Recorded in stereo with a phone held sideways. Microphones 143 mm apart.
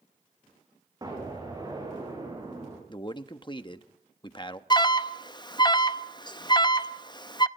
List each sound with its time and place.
1.0 s an explosion: 25° right (ahead or behind), 8 m
2.9 s a man speaking: 35° left (ahead or behind), 1.1 m
4.7 s an alarm: 30° left (ahead or behind), 0.6 m